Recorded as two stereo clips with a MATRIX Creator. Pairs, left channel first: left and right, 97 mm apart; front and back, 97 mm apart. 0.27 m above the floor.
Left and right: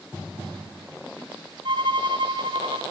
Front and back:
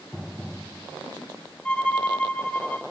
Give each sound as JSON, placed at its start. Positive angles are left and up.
{"t": 1.6, "sound": "a violin", "azimuth_deg": -75, "distance_m": 2.5}